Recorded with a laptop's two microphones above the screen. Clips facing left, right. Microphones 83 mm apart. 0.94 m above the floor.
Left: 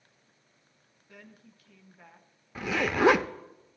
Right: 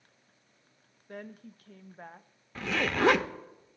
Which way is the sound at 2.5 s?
10° left (ahead or behind).